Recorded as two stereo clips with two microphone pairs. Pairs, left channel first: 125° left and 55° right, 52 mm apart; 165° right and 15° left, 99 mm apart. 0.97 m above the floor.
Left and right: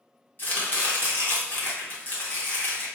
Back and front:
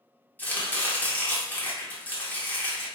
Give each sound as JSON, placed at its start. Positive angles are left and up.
{"t": 0.4, "sound": "chopping", "azimuth_deg": 130, "distance_m": 1.1}